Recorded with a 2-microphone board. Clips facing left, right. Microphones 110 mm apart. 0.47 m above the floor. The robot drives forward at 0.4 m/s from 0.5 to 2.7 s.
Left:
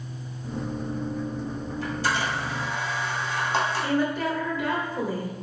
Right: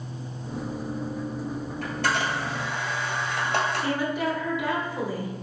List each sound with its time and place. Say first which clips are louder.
1.8 s a camera shutter: even; 65° right (ahead or behind), 1.8 m; by 3.9 s 75° right (ahead or behind), 1.7 m
3.8 s a woman speaking: left 1 dB; 15° right (ahead or behind), 1.3 m